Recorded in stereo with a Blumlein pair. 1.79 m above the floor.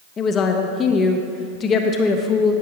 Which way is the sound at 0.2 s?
25° left.